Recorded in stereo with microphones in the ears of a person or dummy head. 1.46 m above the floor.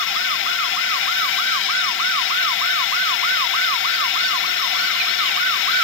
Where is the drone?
60° left (ahead or behind).